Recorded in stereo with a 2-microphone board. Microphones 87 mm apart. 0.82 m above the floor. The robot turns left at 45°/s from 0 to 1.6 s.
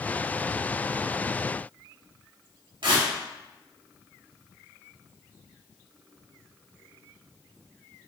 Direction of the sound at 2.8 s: 75° right (ahead or behind).